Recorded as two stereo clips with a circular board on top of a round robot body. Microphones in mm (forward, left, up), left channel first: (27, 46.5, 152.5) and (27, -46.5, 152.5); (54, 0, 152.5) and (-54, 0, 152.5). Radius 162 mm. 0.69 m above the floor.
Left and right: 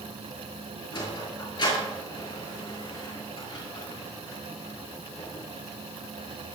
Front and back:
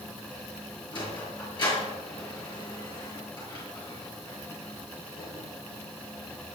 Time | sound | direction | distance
0.9 | a sliding door | 45° left | 7 m